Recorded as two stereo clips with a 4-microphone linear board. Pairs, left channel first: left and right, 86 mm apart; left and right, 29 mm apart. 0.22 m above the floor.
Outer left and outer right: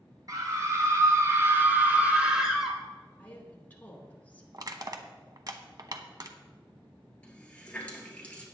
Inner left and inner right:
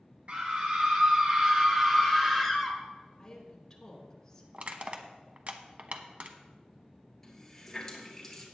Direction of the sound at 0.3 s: 45° right (ahead or behind).